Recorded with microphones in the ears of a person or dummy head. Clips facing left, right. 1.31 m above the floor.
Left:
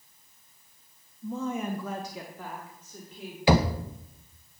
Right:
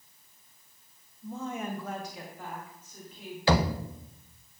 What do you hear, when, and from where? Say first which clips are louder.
1.2 s a woman speaking: left 4 dB; 60° left (ahead or behind), 0.9 m; by 3.4 s 45° left (ahead or behind), 2.5 m
3.5 s knocking: left 3 dB; 15° left (ahead or behind), 0.6 m